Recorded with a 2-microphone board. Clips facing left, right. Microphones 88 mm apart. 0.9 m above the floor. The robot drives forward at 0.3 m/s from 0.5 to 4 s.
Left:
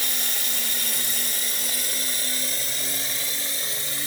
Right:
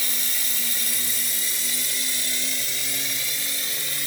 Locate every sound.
0.0 s running water: 60° left (ahead or behind), 0.8 m; by 4.1 s 30° left (ahead or behind), 1.4 m